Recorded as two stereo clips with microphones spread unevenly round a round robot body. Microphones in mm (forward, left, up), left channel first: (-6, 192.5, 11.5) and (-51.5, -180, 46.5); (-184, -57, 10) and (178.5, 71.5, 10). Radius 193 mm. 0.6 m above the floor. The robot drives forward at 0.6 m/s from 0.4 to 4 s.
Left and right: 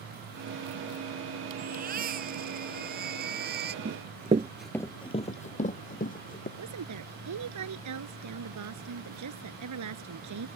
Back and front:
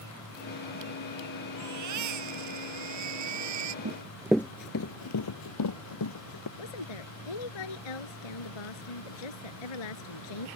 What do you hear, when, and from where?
1.6 s a baby crying: 30° right
3.9 s running footsteps: 35° right; by 6.5 s 155° left
6.6 s a woman speaking: 140° right